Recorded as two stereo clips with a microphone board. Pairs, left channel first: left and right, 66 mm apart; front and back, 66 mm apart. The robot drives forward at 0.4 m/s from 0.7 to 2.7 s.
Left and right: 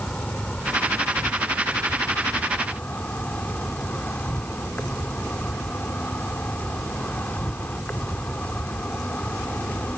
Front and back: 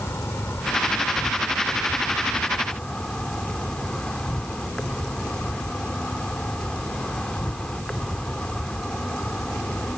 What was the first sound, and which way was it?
An insect, 30° left.